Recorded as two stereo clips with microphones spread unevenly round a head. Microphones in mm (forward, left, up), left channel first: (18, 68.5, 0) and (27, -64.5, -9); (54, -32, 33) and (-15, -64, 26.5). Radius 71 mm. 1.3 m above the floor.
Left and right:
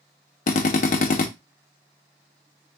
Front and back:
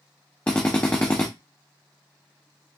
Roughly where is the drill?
Left.